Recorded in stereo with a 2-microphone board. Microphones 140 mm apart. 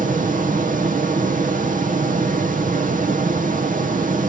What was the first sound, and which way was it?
Running water, 80° right.